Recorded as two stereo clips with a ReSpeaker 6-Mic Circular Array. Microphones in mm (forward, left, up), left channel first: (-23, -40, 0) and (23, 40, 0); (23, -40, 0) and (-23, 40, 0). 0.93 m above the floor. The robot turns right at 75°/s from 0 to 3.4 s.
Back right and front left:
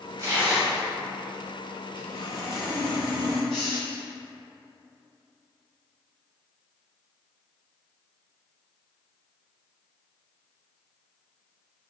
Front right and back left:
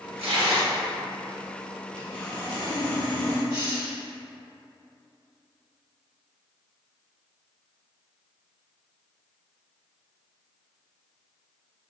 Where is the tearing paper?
115° left, 1.2 m; by 0.8 s 165° left, 1.2 m.